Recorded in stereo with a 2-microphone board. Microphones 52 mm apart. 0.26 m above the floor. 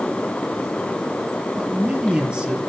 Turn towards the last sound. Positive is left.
turn(degrees=-15)  # may be behind; listen again after turning